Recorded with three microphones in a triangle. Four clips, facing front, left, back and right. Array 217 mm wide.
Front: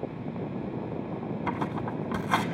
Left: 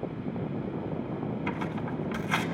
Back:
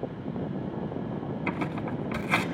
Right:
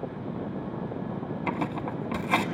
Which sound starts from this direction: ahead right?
Tearing paper, at 1.5 s.